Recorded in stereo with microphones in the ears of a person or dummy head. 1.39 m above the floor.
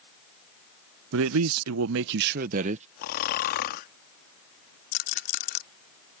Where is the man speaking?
70° right (ahead or behind); by 2.9 s 35° right (ahead or behind).